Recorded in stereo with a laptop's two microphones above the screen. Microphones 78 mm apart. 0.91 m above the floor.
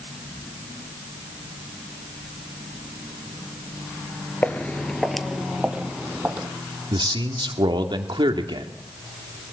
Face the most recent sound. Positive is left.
turn(degrees=-70)  # may be behind; listen again after turning